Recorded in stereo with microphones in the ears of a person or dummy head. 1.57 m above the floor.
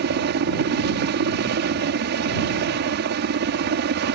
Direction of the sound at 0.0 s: 55° right (ahead or behind).